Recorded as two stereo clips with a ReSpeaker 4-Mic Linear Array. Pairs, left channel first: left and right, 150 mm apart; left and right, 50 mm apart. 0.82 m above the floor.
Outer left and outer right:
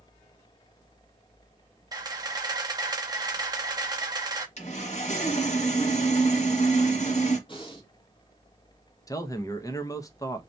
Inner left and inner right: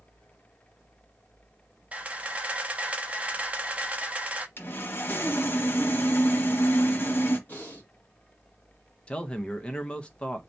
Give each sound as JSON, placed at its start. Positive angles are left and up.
{"t": 1.9, "sound": "a camera shutter", "side_deg": -25, "distance_m": 0.6}
{"t": 4.6, "sound": "sawing", "side_deg": 50, "distance_m": 0.9}
{"t": 7.5, "sound": "breathing", "side_deg": 35, "distance_m": 1.6}
{"t": 9.1, "sound": "a man speaking", "side_deg": 20, "distance_m": 0.6}